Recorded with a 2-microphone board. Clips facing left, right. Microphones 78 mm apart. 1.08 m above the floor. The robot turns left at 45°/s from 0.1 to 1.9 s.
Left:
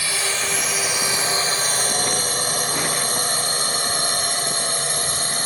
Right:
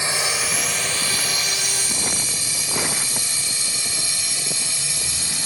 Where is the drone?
25° right (ahead or behind); by 5.5 s 45° left (ahead or behind).